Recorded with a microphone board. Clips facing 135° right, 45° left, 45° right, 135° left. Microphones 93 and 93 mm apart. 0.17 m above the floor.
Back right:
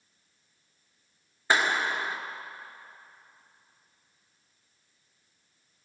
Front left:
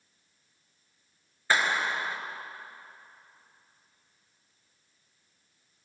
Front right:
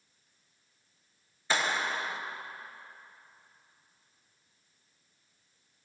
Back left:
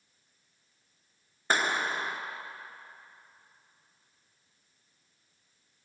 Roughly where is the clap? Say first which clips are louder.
Back right 1 dB, back left 2 dB; behind.